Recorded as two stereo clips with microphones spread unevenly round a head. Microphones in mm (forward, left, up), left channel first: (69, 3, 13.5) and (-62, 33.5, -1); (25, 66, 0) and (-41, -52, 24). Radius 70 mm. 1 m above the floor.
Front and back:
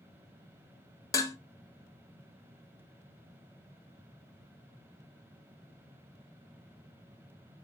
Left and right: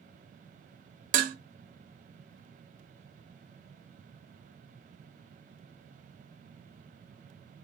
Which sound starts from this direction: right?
Dishes clattering, at 1.1 s.